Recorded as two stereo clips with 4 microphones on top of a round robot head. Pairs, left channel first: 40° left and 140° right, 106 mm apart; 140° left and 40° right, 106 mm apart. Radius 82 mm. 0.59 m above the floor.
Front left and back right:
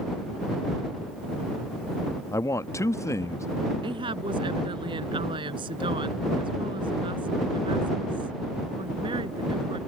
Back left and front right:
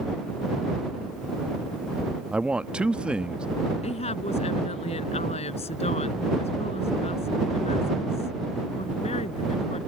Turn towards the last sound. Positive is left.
turn(degrees=175)